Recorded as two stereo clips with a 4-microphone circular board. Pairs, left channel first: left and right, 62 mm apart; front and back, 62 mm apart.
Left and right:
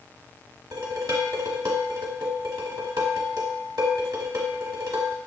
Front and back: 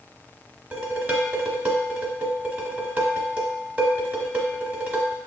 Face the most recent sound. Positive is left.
turn(degrees=-115)